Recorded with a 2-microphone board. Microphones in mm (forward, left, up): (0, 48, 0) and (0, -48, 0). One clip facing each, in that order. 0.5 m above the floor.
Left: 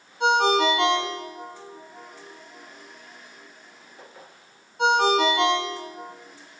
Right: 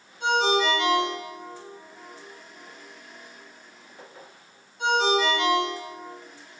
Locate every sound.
0.2 s a ringtone: 75° left (ahead or behind), 2.5 m